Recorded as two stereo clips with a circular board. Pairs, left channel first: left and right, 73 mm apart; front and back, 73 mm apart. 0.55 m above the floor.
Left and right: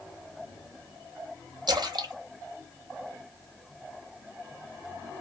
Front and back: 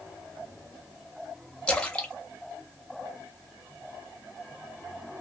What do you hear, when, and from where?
1.7 s a splash: 75° right, 0.7 m